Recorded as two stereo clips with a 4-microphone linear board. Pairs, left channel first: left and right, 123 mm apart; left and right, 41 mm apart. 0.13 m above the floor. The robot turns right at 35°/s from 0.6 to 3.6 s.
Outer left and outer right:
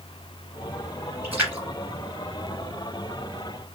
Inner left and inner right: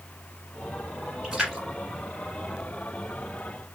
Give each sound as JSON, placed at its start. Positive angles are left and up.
{"t": 1.2, "sound": "a splash", "side_deg": -15, "distance_m": 1.8}